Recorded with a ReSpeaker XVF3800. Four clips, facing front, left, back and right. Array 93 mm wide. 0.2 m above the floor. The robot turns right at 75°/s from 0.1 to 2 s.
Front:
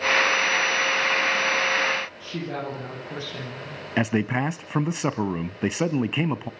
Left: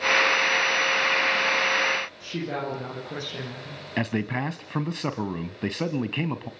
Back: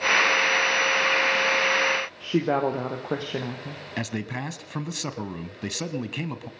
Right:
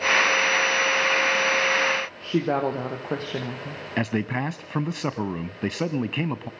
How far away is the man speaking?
About 1.3 m.